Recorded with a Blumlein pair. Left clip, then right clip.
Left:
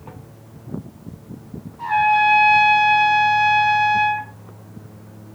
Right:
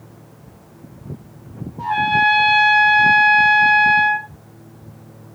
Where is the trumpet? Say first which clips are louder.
Even; 10° right, 1.9 m.